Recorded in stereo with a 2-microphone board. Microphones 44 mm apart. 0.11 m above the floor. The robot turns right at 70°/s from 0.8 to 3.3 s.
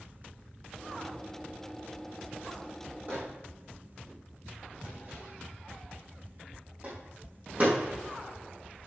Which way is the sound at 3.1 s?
50° right (ahead or behind).